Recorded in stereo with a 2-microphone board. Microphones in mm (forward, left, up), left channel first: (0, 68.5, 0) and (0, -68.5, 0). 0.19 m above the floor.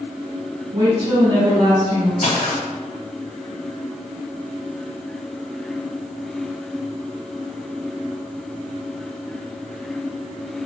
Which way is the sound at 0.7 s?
35° right (ahead or behind).